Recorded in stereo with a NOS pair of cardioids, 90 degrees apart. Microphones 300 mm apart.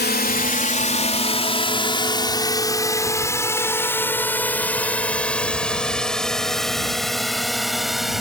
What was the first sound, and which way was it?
A drone, 30° left.